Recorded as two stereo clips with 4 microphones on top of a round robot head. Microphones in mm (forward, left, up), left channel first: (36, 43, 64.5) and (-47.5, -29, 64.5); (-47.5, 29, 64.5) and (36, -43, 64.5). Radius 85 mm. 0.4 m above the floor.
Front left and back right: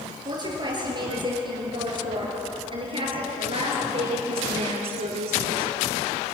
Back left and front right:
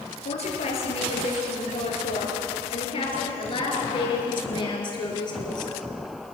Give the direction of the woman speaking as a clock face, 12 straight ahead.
6 o'clock.